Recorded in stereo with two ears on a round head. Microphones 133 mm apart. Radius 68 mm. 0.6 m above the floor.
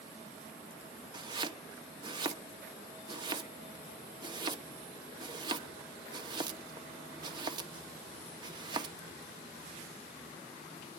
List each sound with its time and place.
1.1 s chopping: 30° right (ahead or behind), 0.9 m